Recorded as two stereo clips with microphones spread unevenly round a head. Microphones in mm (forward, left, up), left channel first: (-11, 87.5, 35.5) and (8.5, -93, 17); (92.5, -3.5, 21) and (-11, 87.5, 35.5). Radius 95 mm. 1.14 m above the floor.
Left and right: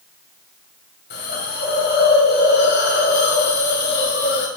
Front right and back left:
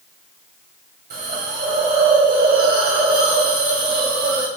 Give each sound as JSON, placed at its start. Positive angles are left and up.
{"t": 1.1, "sound": "a hiss", "azimuth_deg": 130, "distance_m": 2.0}